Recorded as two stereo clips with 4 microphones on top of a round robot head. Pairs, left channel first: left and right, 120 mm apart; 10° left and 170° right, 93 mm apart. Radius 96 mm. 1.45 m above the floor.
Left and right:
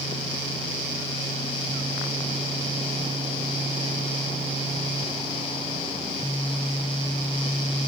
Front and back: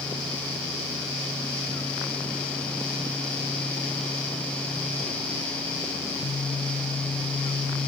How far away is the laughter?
No laughter in this recording.